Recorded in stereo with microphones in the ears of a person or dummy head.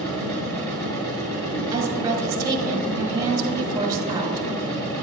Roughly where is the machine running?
Left.